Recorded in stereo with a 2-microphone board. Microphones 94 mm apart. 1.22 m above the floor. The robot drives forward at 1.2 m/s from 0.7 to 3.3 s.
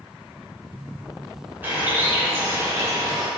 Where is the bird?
20° right (ahead or behind), 3.5 m; by 3.3 s 45° right (ahead or behind), 1.6 m.